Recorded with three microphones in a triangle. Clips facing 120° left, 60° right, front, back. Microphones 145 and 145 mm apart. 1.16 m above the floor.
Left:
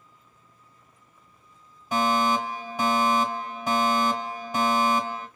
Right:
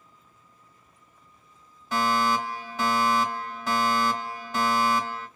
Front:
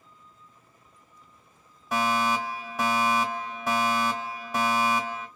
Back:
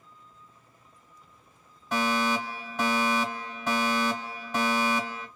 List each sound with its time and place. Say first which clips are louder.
1.9 s a fire alarm: left 1 dB, front 1 dB; 70° left, 1.0 m